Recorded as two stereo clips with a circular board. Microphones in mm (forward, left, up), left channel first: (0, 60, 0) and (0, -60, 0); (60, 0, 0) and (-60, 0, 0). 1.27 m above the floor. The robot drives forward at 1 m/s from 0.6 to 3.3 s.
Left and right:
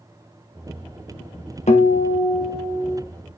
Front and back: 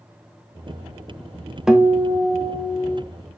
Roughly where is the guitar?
Left.